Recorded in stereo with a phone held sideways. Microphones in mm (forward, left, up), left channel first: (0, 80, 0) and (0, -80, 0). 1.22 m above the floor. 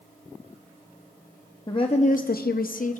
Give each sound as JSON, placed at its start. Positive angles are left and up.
{"t": 1.7, "sound": "a woman speaking", "side_deg": 25, "distance_m": 0.7}